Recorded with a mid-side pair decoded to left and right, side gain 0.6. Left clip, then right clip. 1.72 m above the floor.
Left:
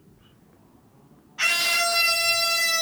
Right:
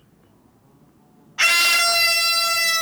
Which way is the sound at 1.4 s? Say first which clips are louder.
Right 6 dB; 40° right.